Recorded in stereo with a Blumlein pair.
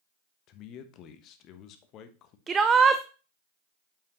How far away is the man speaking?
About 1.2 m.